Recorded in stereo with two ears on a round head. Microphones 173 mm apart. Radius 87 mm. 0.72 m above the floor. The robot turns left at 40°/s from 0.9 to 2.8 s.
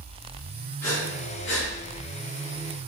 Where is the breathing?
45° left (ahead or behind), 3.5 m; by 1.7 s 75° left (ahead or behind), 3.5 m.